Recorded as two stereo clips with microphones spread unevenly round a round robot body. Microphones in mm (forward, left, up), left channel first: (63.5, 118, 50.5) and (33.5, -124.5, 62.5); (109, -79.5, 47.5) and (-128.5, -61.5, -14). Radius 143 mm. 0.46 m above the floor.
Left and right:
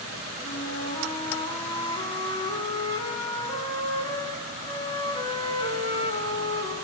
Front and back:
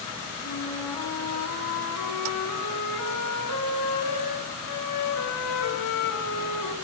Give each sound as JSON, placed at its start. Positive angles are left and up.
{"t": 0.4, "sound": "a flute", "azimuth_deg": 15, "distance_m": 4.5}